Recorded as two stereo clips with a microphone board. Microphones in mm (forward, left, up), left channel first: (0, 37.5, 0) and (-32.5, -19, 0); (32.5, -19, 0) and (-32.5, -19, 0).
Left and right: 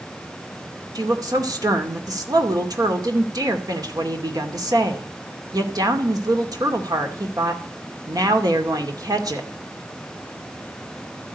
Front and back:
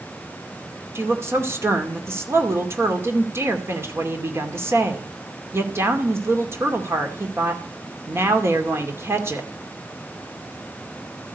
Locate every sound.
0.9 s a woman speaking: 130° right, 2.5 m